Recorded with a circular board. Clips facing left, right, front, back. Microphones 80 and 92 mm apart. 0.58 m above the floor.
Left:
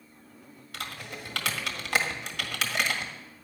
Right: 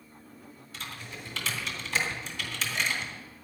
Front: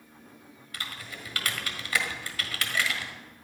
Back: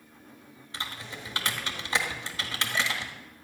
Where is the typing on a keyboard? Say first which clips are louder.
Left 3 dB, back 2 dB; 115° left, 1.6 m.